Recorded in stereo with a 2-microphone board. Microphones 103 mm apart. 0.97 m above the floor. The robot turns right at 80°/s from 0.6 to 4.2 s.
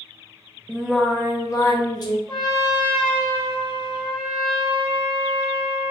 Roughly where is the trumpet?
Behind right.